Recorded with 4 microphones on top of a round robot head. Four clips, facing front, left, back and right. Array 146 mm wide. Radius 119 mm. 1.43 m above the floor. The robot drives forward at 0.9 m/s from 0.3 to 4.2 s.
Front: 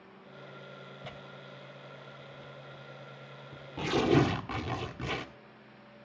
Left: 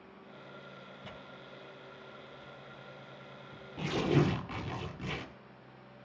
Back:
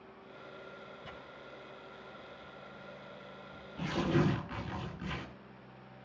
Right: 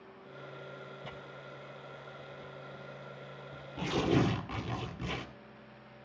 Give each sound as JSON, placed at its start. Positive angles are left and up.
{"t": 1.0, "sound": "tearing paper", "azimuth_deg": -5, "distance_m": 5.5}